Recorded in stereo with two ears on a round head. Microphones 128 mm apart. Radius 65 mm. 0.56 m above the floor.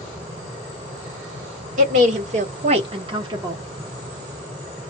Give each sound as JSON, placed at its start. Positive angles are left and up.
{"t": 1.8, "sound": "a woman speaking", "side_deg": -60, "distance_m": 1.6}